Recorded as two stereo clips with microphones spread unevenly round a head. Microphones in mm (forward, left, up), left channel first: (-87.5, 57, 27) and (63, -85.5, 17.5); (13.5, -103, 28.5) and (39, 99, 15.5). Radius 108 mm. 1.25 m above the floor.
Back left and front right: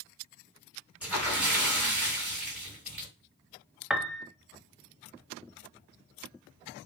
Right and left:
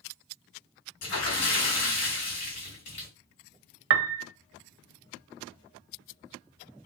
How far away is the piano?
About 0.8 m.